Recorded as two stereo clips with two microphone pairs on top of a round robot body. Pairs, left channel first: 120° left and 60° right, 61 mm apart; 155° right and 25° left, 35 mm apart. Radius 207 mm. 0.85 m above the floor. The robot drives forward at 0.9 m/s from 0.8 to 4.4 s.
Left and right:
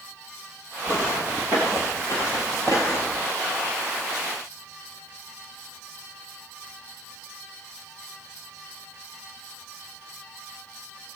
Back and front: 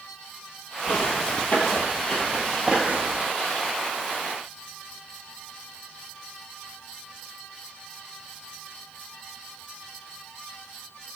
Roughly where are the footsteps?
Behind right.